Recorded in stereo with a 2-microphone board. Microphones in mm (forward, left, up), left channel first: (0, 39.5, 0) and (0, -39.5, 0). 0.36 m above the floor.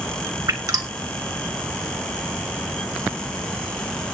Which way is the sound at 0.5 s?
50° right (ahead or behind).